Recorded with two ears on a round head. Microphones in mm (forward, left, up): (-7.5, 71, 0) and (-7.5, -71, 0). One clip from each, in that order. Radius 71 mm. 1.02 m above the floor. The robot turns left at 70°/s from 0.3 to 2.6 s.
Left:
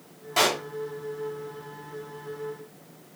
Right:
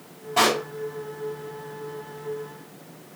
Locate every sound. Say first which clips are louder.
0.4 s a pop: right 3 dB; 85° left, 3 m; by 0.6 s 65° left (ahead or behind), 3 m